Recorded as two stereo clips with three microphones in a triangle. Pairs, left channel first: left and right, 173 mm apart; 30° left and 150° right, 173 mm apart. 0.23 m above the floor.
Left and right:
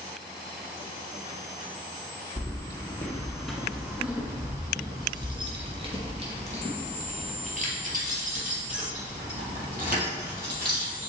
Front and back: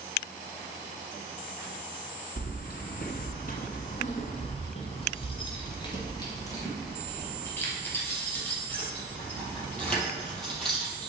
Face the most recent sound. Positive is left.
turn(degrees=-60)